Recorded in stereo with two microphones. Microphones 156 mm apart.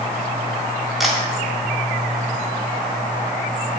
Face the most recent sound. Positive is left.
turn(degrees=0)  # may be behind; listen again after turning